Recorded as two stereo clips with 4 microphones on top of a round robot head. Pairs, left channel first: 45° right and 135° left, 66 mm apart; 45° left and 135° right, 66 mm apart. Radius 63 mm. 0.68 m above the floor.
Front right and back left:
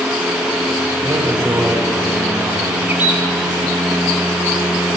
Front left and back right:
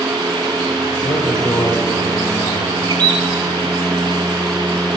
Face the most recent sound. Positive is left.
turn(degrees=-155)